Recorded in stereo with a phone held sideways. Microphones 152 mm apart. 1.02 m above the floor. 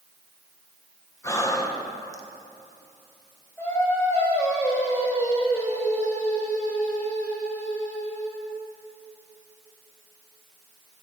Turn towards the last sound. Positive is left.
turn(degrees=15)  # may be behind; listen again after turning